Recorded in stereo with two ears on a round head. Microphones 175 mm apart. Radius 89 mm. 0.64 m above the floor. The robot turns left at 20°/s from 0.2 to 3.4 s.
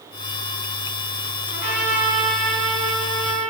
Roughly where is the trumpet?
Ahead left.